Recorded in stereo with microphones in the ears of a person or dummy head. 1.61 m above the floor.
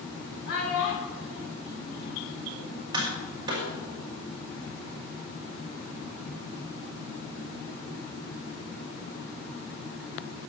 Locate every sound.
0.5 s a child speaking: 60° left (ahead or behind), 2.5 m; by 2.8 s 75° left (ahead or behind), 5 m
2.9 s tapping: 25° right (ahead or behind), 4.5 m